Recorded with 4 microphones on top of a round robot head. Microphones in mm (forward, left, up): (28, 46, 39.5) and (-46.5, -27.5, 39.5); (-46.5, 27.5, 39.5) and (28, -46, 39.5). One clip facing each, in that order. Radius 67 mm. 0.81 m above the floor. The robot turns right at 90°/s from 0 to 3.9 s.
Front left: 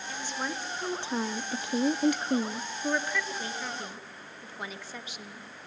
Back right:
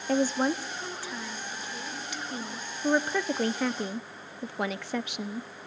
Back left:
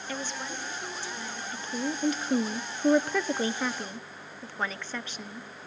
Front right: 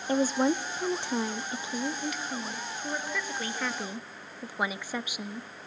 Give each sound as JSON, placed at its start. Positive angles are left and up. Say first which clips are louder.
{"t": 0.1, "sound": "a woman speaking", "louder": "back right 11 dB, front right 12 dB", "azimuth_deg": -105, "distance_m": 1.0}